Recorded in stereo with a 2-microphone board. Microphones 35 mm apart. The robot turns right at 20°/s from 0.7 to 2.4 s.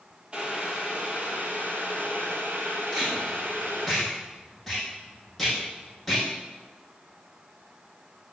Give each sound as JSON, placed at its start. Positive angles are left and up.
{"t": 0.3, "sound": "boiling", "azimuth_deg": -155, "distance_m": 2.5}
{"t": 2.9, "sound": "tape being pulled", "side_deg": 0, "distance_m": 5.5}